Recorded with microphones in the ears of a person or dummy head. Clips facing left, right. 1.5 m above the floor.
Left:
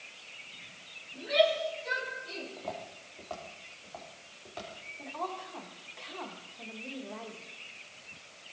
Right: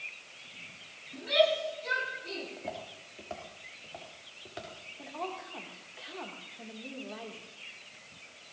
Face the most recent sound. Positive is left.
turn(degrees=-10)  # may be behind; listen again after turning